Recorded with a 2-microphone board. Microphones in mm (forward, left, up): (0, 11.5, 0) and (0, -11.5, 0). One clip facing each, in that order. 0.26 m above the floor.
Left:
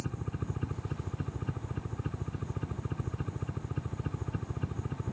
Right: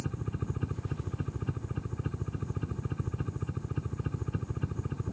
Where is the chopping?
No chopping in this recording.